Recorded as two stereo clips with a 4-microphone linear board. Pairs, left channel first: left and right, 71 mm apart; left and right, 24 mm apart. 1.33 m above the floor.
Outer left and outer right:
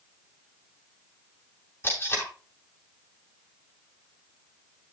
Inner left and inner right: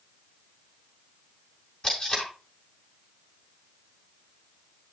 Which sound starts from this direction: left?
Tape being pulled, at 1.8 s.